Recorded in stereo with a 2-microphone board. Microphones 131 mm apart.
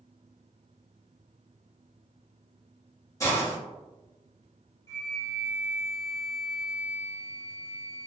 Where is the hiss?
25° left (ahead or behind), 1.1 m.